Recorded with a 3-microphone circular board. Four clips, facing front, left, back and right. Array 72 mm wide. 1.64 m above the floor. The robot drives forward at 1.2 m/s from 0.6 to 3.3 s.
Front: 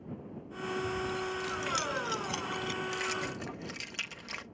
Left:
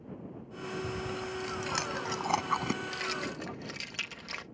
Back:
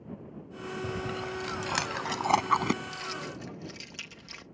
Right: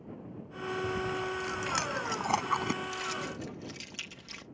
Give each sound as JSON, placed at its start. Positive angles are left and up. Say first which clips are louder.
{"t": 0.8, "sound": "chewing", "louder": "right 5 dB, back 2 dB", "azimuth_deg": -175}
{"t": 2.8, "sound": "keys jangling", "louder": "even, front 3 dB", "azimuth_deg": 40}